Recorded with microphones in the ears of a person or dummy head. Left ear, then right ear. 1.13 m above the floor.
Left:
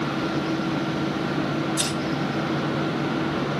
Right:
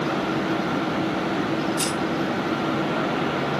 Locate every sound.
1.8 s scissors: 55° left (ahead or behind), 3.5 m